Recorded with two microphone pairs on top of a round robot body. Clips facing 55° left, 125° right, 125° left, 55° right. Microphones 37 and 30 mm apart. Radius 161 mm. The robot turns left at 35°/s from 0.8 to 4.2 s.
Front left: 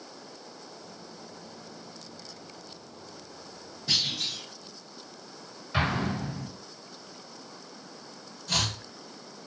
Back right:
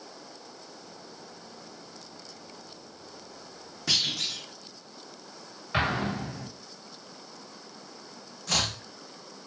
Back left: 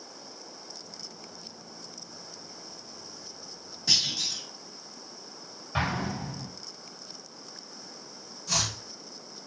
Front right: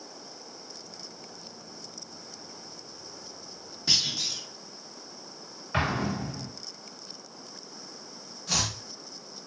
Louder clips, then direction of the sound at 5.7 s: Back right 1 dB, front right 2 dB; 55° right.